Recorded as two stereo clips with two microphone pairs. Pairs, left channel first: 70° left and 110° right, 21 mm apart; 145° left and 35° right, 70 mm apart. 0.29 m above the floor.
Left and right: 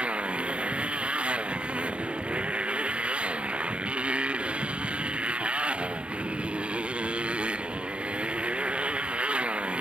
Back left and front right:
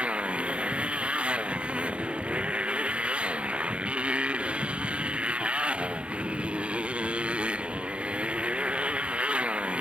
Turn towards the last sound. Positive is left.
turn(degrees=-110)